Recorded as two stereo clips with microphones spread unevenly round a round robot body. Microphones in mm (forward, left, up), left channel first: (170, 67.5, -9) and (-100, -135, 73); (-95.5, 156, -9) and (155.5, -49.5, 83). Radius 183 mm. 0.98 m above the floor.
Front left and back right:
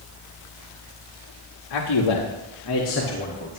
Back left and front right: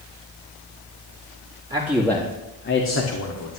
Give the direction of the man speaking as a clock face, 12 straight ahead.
11 o'clock.